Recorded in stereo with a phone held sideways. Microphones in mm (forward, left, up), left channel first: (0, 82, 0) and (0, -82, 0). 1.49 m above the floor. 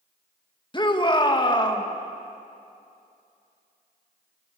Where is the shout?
30° left (ahead or behind), 2 m.